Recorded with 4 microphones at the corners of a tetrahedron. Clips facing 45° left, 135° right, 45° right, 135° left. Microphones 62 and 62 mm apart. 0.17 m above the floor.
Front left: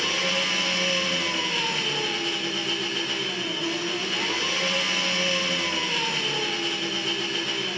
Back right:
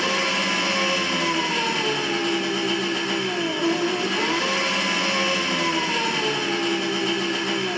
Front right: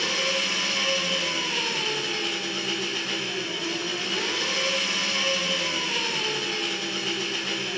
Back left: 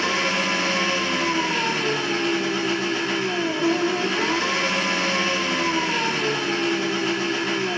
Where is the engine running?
165° right, 3.5 m.